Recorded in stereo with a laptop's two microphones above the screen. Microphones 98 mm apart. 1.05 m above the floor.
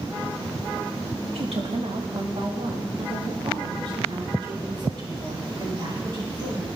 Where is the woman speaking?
75° right (ahead or behind), 2 m; by 6.7 s 45° right (ahead or behind), 9 m.